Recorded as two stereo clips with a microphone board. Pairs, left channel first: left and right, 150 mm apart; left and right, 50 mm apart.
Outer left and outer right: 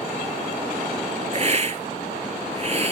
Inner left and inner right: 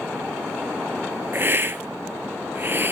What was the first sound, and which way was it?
A hiss, 50° right (ahead or behind).